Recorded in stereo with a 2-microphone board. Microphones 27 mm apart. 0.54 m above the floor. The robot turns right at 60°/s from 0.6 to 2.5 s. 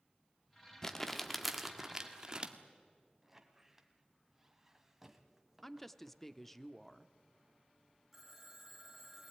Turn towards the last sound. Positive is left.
turn(degrees=-10)  # may be behind; listen again after turning